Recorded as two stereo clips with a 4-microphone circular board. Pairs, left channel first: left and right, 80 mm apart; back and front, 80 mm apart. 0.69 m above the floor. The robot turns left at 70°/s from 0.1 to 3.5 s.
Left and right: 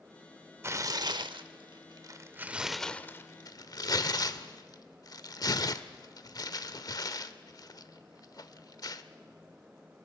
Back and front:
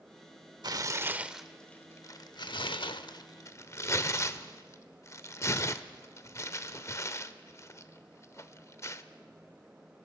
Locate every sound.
0.6 s tearing paper: 35° right, 0.9 m; by 9.0 s 125° left, 0.9 m